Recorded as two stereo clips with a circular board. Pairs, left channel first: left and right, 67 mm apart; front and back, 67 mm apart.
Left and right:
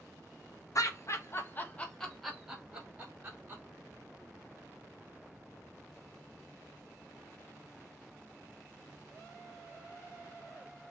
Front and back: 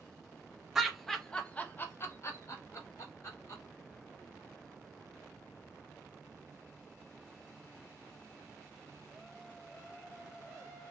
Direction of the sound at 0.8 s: 95° left.